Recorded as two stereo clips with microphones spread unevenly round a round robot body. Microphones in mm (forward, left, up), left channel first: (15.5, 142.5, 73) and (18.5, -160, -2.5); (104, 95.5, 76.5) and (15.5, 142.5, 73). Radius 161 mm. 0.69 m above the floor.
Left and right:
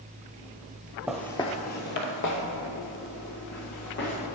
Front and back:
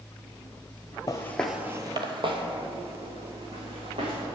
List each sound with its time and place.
1.1 s footsteps: 10° left, 0.9 m; by 4.1 s 145° left, 3.5 m